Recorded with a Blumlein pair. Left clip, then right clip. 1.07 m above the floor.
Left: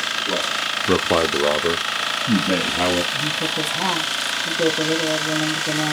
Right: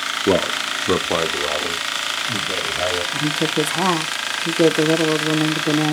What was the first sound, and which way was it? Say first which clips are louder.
A man speaking: right 3 dB; 45° right.